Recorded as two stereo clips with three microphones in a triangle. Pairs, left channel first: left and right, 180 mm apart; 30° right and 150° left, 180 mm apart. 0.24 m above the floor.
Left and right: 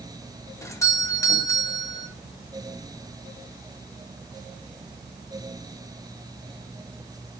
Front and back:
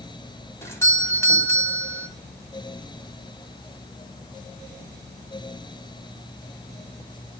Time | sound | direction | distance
0.6 | a doorbell | 35° left | 1.6 m